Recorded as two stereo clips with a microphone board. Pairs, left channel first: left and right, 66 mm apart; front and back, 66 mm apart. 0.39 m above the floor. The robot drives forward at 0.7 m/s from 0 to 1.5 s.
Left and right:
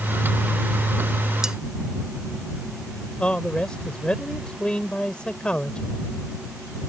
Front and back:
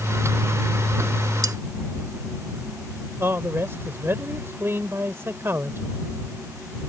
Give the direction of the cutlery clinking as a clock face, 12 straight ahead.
6 o'clock.